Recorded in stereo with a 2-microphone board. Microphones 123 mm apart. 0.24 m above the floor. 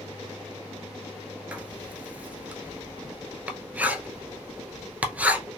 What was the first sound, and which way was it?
Writing, 10° right (ahead or behind).